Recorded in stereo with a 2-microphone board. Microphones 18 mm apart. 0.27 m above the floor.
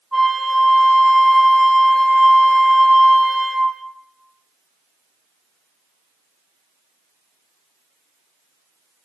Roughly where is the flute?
Centre.